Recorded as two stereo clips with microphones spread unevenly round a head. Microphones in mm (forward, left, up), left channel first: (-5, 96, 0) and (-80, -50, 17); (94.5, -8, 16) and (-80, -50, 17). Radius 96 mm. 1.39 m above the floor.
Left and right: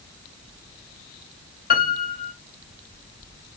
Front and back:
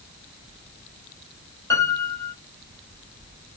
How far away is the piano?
About 5 m.